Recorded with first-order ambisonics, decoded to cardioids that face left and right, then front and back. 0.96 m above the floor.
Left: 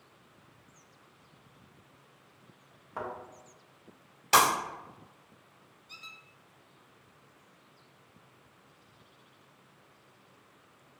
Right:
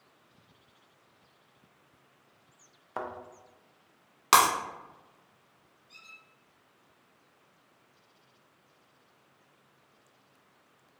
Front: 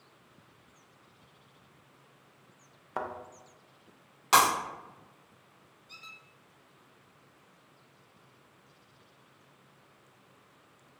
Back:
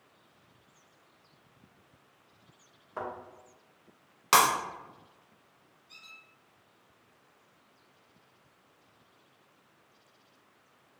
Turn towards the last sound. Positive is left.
turn(degrees=60)